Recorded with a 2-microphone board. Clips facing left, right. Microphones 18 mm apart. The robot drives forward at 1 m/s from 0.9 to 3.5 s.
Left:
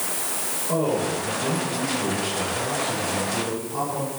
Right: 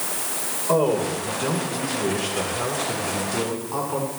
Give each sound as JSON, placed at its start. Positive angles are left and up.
{"t": 0.7, "sound": "a man speaking", "side_deg": -60, "distance_m": 10.0}